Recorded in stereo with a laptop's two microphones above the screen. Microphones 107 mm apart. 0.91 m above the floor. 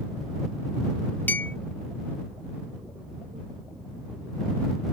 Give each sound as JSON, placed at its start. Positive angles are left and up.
{"t": 1.3, "sound": "a clink", "side_deg": 20}